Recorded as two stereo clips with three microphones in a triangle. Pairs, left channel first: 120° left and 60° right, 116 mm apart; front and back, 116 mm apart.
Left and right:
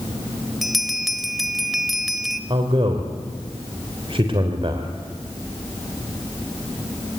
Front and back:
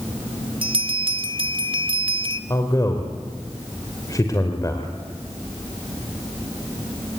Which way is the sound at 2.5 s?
50° right.